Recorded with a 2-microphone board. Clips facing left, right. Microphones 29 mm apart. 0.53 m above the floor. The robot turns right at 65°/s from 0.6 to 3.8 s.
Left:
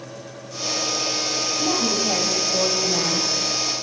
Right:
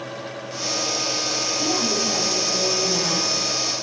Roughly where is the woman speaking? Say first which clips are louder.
Left 1 dB; ahead left.